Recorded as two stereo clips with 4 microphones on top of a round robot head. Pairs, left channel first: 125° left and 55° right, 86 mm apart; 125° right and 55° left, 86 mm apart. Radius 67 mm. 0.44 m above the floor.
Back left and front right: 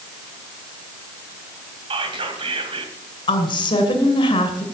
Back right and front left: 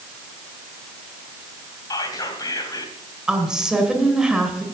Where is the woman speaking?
135° left, 2.5 m.